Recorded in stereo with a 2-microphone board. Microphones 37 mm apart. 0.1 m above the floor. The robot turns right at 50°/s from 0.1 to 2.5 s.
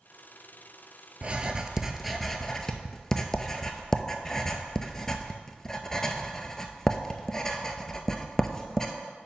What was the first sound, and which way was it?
Writing, 35° right (ahead or behind).